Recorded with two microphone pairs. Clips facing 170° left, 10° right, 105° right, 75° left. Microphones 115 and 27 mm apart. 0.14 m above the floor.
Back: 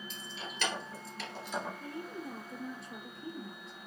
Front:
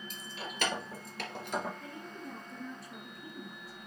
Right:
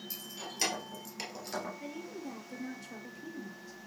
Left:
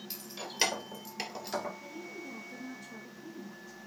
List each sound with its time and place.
0.1 s keys jangling: 25° left, 2.5 m; by 1.7 s 5° right, 1.9 m
1.8 s a woman speaking: 130° right, 2.5 m